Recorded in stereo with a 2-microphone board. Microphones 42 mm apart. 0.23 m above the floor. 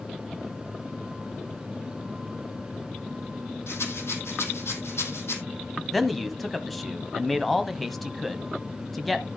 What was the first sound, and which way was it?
A rattle, 85° left.